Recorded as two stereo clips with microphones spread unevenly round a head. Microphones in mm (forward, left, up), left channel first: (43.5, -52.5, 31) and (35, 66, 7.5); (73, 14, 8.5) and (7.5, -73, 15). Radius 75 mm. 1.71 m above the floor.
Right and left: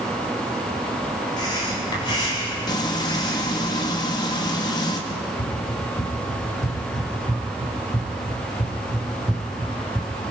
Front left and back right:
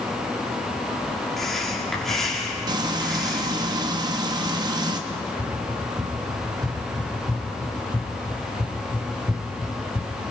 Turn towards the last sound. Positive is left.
turn(degrees=-10)